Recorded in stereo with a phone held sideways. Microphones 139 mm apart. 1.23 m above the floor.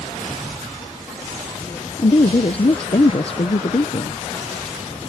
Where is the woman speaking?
45° left (ahead or behind).